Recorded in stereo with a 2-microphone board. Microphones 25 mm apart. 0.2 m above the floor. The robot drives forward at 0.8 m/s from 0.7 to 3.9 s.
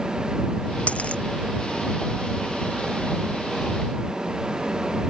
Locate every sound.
0.9 s a dropped coin: 65° left (ahead or behind); by 1.2 s 60° left (ahead or behind)